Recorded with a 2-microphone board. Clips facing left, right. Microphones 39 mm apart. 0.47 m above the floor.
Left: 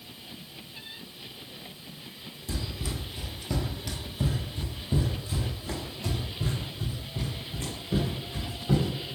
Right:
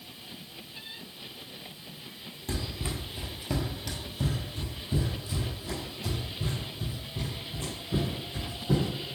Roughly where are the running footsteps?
Right.